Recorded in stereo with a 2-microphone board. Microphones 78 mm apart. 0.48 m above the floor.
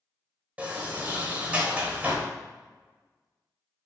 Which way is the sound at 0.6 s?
15° right (ahead or behind).